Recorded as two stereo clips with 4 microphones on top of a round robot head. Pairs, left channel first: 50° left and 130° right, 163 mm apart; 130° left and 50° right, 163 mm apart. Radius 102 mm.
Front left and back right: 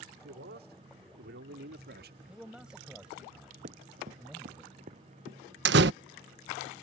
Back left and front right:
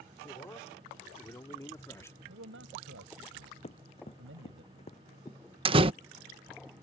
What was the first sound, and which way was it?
A man speaking, 155° right.